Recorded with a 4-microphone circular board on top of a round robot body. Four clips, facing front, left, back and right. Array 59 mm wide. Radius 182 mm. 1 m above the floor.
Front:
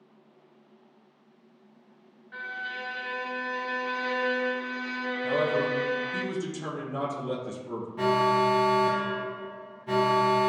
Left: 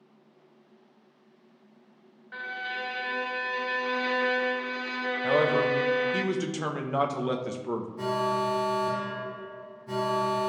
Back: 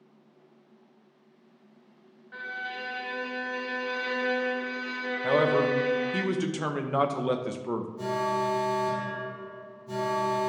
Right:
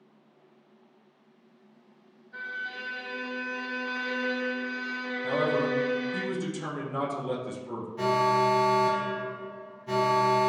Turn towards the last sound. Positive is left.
turn(degrees=-20)